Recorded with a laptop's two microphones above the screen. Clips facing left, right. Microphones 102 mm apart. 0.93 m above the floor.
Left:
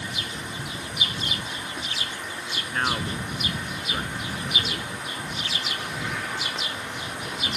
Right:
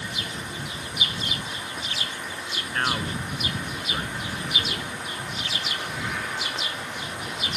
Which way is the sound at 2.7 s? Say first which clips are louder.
Even; centre (ahead or behind).